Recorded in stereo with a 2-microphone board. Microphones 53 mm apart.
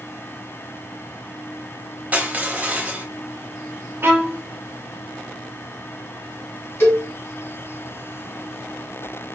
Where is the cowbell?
50° left (ahead or behind), 2 m.